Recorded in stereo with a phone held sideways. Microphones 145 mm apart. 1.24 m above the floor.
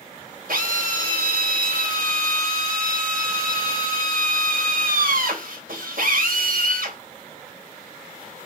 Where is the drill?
70° right (ahead or behind), 3 m.